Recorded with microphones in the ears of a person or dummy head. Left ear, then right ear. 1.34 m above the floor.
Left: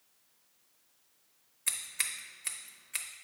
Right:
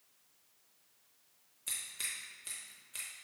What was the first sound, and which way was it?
Scissors, 50° left (ahead or behind).